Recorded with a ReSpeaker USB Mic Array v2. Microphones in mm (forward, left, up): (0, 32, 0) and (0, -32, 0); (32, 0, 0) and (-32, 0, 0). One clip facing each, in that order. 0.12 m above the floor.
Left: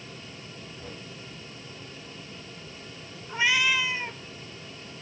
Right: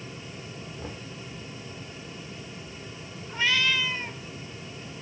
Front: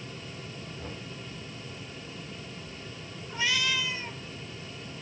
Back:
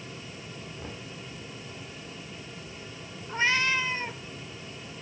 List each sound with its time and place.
0.8 s knocking: 110° right, 5 m
3.3 s a cat meowing: 160° left, 0.8 m